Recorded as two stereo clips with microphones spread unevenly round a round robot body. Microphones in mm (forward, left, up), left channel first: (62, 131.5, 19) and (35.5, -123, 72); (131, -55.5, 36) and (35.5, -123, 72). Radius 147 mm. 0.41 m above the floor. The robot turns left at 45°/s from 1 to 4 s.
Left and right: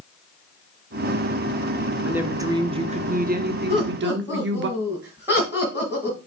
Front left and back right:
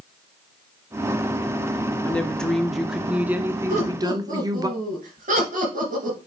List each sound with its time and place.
2.0 s a woman speaking: 5° left, 1.0 m; by 4.7 s 80° right, 1.0 m
3.7 s laughter: 170° right, 3 m; by 6.2 s 175° left, 3 m